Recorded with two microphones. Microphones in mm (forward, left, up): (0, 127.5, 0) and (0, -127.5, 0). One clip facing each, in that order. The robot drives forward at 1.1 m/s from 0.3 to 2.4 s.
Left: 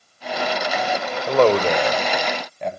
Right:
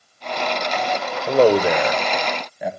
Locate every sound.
1.3 s a man speaking: 15° right (ahead or behind), 1.0 m; by 2.7 s 5° right (ahead or behind), 1.9 m